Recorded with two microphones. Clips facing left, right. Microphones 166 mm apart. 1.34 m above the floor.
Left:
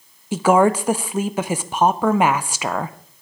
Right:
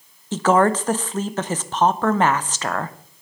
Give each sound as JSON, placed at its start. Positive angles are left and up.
{"t": 0.3, "sound": "a woman speaking", "side_deg": 10, "distance_m": 0.6}